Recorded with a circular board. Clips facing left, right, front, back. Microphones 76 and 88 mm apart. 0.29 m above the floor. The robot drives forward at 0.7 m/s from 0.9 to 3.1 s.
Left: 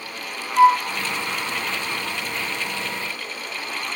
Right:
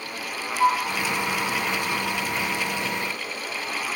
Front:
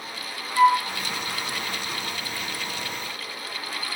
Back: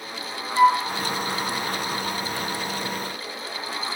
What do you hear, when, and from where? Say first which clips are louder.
0.6 s a flute: left 7 dB, back 1 dB; 100° left, 0.9 m